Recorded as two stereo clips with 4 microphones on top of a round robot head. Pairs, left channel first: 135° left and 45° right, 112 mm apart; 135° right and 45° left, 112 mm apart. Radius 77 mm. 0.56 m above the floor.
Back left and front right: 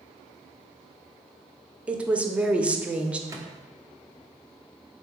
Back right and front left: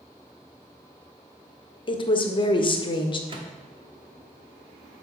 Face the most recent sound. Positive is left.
turn(degrees=15)